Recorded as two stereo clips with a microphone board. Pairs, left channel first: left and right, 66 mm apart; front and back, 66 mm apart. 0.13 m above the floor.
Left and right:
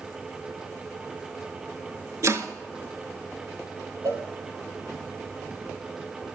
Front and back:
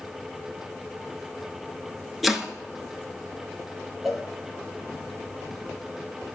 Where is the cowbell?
90° right, 1.5 m.